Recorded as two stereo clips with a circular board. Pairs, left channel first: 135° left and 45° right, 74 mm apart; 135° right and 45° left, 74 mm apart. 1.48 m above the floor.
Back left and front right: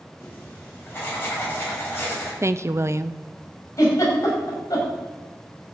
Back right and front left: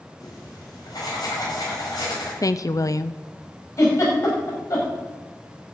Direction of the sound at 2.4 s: 95° right.